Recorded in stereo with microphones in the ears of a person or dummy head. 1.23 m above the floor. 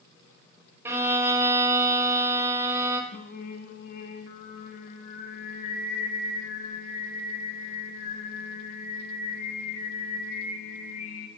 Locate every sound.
0.8 s a violin: 10° right (ahead or behind), 0.8 m
3.1 s singing: 55° left (ahead or behind), 0.9 m